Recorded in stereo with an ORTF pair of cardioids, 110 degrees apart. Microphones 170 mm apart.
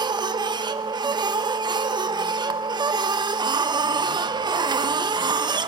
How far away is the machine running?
About 1.2 m.